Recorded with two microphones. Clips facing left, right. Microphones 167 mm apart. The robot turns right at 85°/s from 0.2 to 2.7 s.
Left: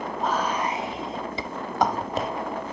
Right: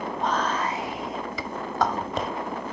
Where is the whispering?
Centre (ahead or behind), 1.1 m.